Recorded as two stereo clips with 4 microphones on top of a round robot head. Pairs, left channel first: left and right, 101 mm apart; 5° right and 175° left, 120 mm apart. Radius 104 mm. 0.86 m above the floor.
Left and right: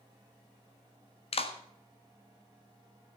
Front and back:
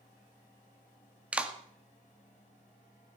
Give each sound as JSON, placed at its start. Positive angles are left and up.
{"t": 1.3, "sound": "a clap", "azimuth_deg": 95, "distance_m": 1.8}